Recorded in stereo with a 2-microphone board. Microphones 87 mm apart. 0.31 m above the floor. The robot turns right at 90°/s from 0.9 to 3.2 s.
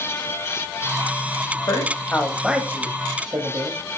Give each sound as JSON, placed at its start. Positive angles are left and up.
{"t": 1.7, "sound": "a man speaking", "side_deg": 40, "distance_m": 1.2}